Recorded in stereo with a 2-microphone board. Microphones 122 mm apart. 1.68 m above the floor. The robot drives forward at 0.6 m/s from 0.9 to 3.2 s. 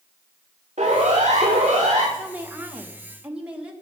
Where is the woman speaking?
15° right (ahead or behind), 1.8 m; by 3.7 s 10° right (ahead or behind), 2.5 m.